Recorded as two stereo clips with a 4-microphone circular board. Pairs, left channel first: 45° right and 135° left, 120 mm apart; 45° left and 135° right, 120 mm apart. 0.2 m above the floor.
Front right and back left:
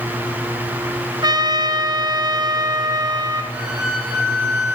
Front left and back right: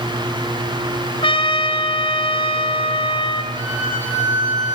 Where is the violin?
145° right, 8 m.